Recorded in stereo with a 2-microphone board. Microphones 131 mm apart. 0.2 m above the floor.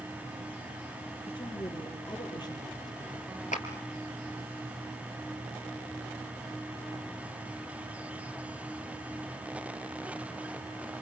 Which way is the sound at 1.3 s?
35° left (ahead or behind).